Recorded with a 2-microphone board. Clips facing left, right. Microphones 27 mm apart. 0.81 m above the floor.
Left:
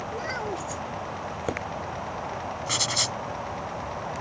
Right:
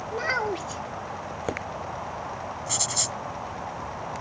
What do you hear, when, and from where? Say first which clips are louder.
0.1 s a child speaking: right 7 dB; 30° right (ahead or behind)
2.7 s writing: left 4 dB; 25° left (ahead or behind)